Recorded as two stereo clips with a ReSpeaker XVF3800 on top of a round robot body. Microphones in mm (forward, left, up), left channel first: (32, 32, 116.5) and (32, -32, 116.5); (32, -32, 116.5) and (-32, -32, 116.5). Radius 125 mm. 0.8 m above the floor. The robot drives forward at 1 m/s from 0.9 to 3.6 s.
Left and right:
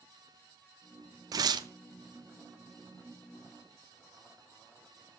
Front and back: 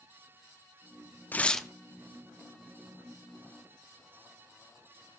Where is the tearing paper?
65° right, 0.8 m; by 1.7 s 95° right, 0.7 m.